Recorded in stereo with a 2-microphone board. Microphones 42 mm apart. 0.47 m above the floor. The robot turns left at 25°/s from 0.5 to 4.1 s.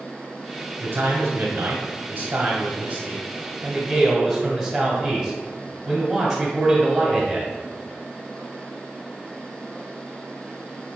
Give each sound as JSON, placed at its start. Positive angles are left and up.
{"t": 0.8, "sound": "a man speaking", "azimuth_deg": -90, "distance_m": 1.4}